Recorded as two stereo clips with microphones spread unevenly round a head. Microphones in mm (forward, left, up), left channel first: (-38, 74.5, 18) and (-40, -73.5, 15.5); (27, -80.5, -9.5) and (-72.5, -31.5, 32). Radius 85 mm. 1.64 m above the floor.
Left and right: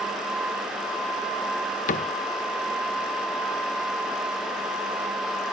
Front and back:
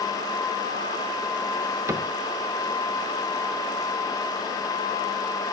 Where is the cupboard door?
100° left.